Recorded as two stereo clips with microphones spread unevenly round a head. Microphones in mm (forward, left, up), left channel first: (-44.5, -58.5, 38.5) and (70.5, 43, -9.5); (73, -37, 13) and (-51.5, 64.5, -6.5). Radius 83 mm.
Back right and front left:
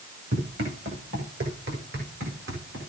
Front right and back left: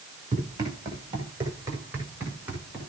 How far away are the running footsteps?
About 7 m.